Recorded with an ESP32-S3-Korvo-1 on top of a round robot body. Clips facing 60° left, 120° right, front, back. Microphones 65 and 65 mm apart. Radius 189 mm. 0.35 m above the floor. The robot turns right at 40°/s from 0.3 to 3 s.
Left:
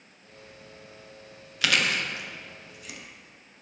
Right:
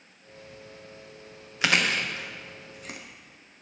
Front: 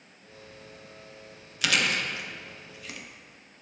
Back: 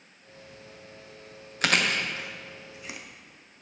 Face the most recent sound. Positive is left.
turn(degrees=-115)